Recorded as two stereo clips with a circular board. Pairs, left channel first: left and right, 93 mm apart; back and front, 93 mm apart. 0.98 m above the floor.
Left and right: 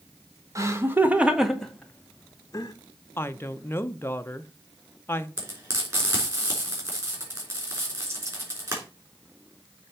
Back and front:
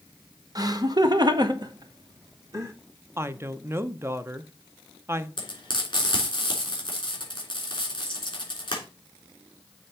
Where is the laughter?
40° right, 1.1 m; by 2.7 s 50° left, 1.1 m.